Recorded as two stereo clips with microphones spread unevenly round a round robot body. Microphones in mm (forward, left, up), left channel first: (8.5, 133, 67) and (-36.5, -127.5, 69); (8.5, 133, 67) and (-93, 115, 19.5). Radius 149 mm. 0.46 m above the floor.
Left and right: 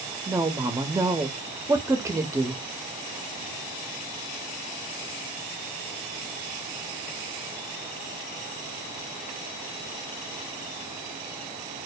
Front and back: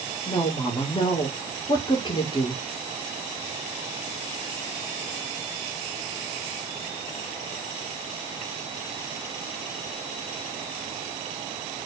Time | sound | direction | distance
0.3 | a woman speaking | 40° right | 0.7 m